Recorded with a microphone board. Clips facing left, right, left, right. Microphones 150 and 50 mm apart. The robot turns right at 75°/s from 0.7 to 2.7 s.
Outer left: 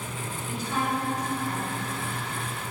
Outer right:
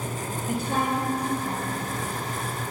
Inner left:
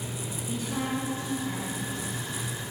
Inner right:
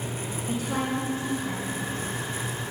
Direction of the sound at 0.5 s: 110° right.